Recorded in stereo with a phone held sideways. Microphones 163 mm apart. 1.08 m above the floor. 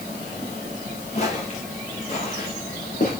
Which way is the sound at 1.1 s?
45° left (ahead or behind).